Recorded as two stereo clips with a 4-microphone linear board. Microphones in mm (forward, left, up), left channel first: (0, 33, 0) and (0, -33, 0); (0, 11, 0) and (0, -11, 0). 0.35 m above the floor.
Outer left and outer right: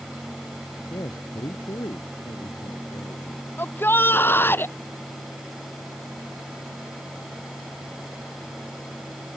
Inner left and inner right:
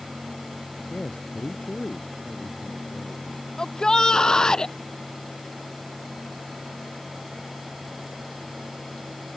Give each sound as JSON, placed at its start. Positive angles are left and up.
{"t": 0.9, "sound": "a man speaking", "side_deg": 80}
{"t": 3.6, "sound": "a shout", "side_deg": 35}